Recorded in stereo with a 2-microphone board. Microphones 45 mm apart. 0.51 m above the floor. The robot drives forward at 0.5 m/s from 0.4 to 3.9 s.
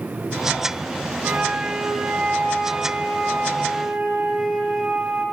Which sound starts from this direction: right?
A flute, at 1.2 s.